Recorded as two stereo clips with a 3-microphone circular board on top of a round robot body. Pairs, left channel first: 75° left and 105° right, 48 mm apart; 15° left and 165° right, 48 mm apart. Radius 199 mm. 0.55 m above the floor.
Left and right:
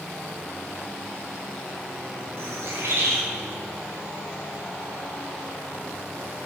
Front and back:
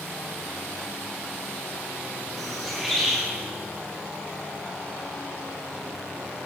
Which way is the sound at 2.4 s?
75° right.